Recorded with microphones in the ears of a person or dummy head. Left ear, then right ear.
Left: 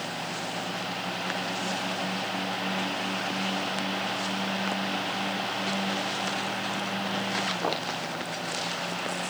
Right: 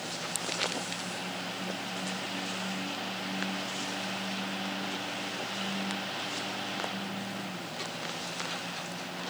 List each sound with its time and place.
Only background noise.